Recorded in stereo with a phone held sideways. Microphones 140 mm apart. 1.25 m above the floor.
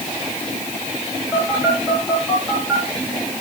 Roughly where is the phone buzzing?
Centre.